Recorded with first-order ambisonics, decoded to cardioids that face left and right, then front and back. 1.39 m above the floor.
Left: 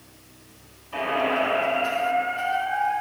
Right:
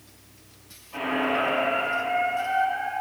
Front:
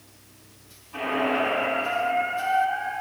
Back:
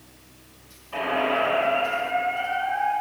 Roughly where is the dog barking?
I don't hear a dog barking.